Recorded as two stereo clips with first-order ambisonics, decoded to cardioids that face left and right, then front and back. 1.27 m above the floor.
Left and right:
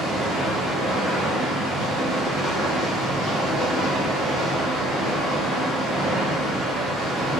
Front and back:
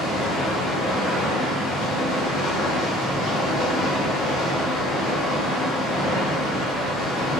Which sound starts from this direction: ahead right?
Running water, at 0.0 s.